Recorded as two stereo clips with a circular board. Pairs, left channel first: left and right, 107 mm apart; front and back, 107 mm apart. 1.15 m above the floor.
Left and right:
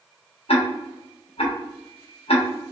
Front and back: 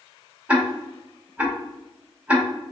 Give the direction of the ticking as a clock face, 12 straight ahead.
9 o'clock.